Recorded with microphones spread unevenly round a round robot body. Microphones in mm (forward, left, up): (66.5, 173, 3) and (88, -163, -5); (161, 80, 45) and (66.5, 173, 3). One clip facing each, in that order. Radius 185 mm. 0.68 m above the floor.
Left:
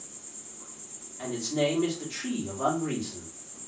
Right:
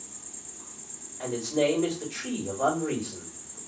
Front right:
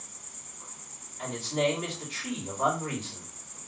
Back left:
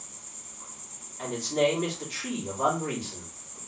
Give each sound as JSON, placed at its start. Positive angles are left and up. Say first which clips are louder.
{"t": 0.0, "sound": "an insect", "louder": "right 1 dB, back left 1 dB", "azimuth_deg": -155, "distance_m": 0.9}
{"t": 1.2, "sound": "a man speaking", "louder": "right 2 dB, back left 3 dB", "azimuth_deg": 120, "distance_m": 1.4}